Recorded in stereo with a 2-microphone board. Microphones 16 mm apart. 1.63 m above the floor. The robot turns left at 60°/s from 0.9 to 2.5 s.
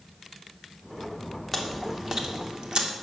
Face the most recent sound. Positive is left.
turn(degrees=-60)  # may be behind; listen again after turning